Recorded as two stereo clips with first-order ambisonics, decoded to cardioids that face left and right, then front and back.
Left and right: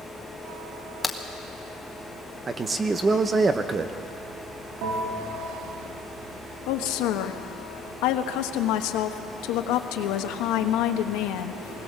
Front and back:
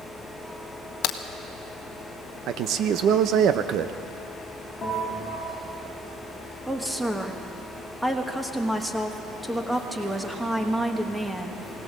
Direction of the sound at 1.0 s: 10° left.